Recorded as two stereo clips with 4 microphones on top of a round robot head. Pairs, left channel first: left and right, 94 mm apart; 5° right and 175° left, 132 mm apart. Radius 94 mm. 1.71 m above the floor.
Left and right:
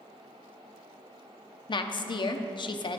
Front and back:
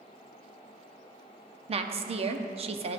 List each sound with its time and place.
1.7 s a woman speaking: 130° left, 0.6 m